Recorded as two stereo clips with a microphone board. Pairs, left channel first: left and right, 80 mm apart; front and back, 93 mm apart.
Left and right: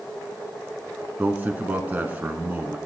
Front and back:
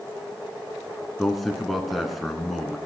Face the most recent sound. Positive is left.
turn(degrees=-90)